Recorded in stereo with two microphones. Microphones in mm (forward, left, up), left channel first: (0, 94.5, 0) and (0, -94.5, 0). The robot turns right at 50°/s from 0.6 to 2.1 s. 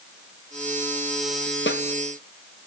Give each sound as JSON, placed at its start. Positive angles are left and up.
{"t": 1.7, "sound": "a snare drum", "side_deg": 80, "distance_m": 1.1}